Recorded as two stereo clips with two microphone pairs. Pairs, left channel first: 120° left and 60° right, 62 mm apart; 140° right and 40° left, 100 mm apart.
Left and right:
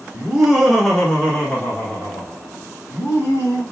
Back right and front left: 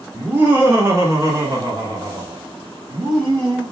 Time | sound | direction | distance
0.1 | laughter | 5° right | 1.1 m